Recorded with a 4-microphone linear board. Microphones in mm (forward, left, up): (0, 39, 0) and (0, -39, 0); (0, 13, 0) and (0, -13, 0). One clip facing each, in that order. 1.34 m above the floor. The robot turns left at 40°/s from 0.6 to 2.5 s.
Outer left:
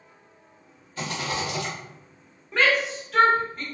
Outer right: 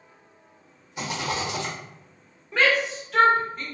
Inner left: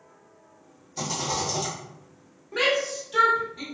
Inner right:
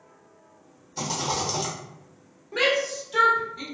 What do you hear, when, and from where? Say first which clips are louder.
1.0 s a rattle: outer right 1 dB, inner right 1 dB; 25° right, 1.1 m; by 1.7 s 55° right, 1.1 m
2.5 s a shout: even, inner right 1 dB; centre (ahead or behind), 1.1 m